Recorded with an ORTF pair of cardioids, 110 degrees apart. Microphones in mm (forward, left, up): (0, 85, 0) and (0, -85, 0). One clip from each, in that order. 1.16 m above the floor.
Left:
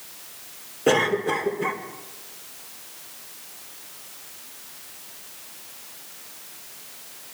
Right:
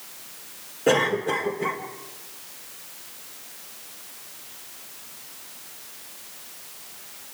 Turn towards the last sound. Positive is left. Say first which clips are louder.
# left 1 dB
turn(degrees=15)